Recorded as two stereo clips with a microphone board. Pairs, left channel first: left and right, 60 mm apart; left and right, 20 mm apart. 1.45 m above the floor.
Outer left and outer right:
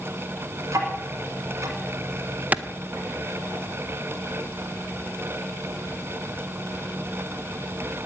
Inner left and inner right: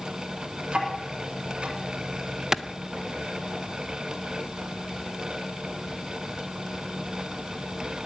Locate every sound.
0.7 s ticking: 65° right (ahead or behind), 3.5 m
2.5 s a clap: 30° right (ahead or behind), 0.7 m